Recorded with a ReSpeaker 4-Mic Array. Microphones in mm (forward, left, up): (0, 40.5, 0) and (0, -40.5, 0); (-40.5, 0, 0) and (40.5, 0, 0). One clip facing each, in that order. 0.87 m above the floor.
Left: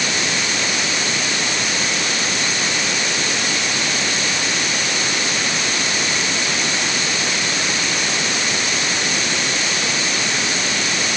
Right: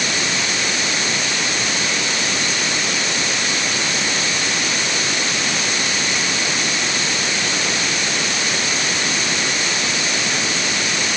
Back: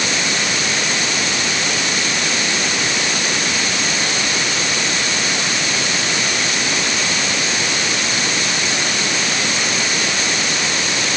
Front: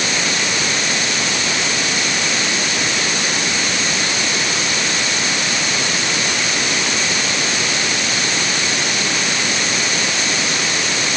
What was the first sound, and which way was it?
Only background noise.